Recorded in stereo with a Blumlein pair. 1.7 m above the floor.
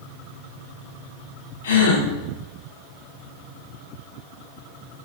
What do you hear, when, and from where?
1.6 s a gasp: 65° left, 5 m